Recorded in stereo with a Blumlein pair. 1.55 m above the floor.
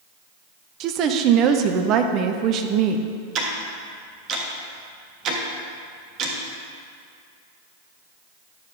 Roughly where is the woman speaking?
Ahead right.